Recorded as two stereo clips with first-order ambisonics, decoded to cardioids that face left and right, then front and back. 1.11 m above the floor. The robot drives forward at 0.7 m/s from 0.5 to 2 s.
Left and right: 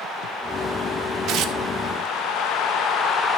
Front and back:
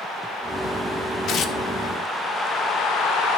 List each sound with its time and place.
1.3 s tearing paper: 50° right, 0.7 m; by 1.6 s 70° right, 0.6 m